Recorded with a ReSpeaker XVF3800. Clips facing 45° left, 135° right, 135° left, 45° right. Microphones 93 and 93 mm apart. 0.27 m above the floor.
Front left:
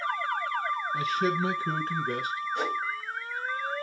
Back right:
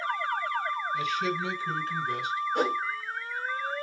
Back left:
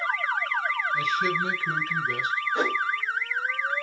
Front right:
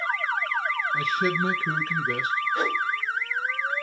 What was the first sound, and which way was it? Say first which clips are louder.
A man speaking: front left 4 dB, front right 1 dB; straight ahead.